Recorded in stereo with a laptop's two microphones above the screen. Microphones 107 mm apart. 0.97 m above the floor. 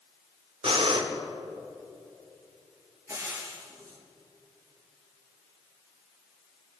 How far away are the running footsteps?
No running footsteps in this recording.